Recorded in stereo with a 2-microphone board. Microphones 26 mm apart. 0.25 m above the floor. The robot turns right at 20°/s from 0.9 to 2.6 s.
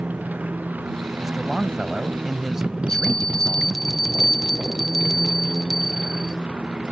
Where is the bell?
20° left (ahead or behind).